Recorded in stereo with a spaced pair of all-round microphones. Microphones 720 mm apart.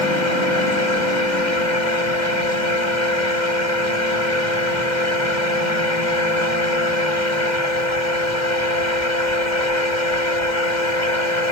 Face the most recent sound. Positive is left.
turn(degrees=85)